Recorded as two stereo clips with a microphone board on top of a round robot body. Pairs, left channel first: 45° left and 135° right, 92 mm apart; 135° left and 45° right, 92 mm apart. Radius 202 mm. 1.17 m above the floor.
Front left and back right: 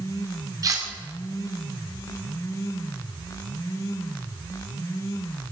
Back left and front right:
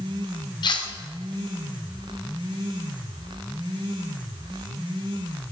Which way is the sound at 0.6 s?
175° left.